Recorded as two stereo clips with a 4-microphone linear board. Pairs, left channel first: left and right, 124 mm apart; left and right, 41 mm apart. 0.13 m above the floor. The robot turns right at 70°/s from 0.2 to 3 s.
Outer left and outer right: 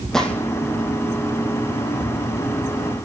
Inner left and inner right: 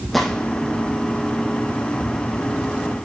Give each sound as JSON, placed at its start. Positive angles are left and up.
{"t": 0.1, "sound": "a gunshot", "side_deg": 5, "distance_m": 2.0}